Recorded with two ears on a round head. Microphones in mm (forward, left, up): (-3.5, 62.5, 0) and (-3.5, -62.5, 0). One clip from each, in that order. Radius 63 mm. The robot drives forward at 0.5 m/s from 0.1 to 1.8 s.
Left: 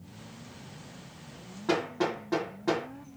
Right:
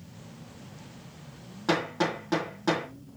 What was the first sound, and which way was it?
Hammering, 75° right (ahead or behind).